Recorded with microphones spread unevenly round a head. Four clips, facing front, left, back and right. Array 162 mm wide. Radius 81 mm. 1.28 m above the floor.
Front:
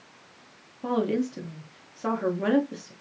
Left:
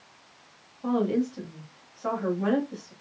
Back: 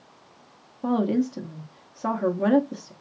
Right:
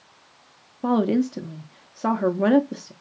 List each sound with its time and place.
0.8 s a woman speaking: 90° right, 0.8 m